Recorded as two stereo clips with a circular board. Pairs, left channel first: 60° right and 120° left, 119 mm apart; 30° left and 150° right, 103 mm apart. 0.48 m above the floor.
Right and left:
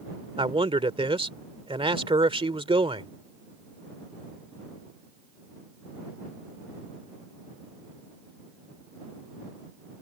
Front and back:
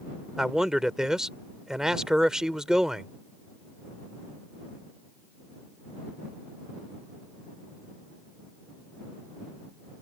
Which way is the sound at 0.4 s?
130° left.